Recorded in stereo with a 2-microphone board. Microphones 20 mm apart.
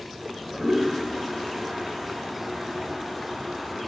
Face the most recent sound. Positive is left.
turn(degrees=-5)  # may be behind; listen again after turning